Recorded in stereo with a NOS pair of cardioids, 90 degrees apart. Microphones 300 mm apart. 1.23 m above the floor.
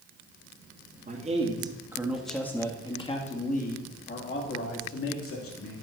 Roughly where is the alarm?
No alarm in this recording.